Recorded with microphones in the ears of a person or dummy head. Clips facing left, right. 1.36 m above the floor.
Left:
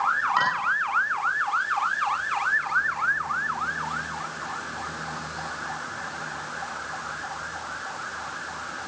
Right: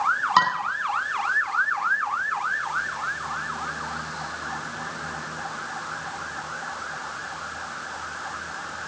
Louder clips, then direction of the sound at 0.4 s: Right 6 dB; 70° right (ahead or behind).